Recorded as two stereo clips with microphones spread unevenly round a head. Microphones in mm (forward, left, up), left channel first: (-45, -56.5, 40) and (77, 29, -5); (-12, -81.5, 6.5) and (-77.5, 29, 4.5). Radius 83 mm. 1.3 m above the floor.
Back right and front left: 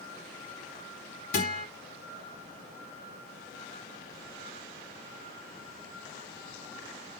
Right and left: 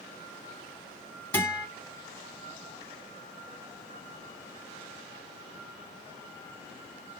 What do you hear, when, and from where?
1.3 s a guitar: 135° right, 3 m